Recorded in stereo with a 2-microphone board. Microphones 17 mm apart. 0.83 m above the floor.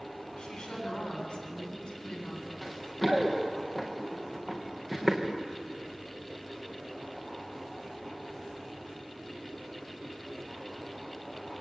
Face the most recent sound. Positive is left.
turn(degrees=0)  # may be behind; listen again after turning